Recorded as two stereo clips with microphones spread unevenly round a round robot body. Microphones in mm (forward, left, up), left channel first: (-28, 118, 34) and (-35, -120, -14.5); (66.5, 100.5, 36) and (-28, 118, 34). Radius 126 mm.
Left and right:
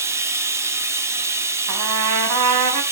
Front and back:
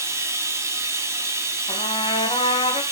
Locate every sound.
0.0 s running water: 150° right, 1.1 m
1.7 s a trumpet: 70° right, 2 m